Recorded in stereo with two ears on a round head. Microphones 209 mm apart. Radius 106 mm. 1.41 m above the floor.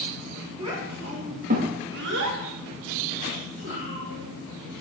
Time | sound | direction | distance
0.6 | a child speaking | 20° right (ahead or behind) | 1.8 m